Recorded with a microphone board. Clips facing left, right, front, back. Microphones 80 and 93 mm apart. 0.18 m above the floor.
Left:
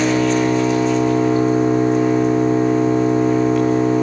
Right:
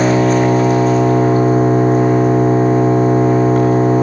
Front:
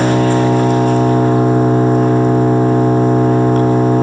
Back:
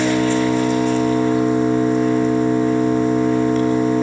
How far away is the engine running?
About 5 m.